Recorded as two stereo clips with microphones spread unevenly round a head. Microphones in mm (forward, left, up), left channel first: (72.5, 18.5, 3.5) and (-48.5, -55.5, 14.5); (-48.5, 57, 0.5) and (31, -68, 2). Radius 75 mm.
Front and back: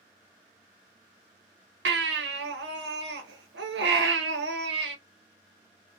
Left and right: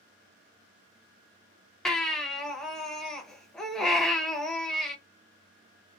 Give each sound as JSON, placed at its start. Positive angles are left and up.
{"t": 1.9, "sound": "a baby crying", "azimuth_deg": -150, "distance_m": 0.7}